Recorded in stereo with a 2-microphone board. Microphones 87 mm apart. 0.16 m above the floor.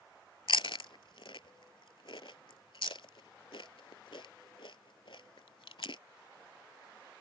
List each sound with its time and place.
0.5 s chewing: 80° left